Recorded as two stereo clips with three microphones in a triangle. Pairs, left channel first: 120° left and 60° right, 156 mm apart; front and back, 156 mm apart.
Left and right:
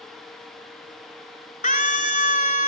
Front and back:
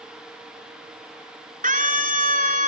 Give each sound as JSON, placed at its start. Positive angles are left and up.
{"t": 1.6, "sound": "a scream", "azimuth_deg": 150, "distance_m": 4.0}